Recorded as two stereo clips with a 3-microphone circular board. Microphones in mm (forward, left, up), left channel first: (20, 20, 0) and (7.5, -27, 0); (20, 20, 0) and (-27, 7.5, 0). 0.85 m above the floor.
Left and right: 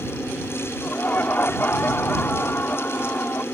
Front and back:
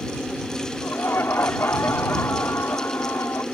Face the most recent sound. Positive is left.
turn(degrees=35)